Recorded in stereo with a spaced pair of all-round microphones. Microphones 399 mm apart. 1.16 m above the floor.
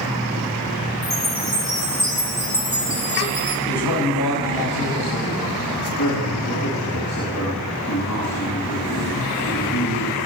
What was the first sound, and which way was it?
A chime, 70° right (ahead or behind).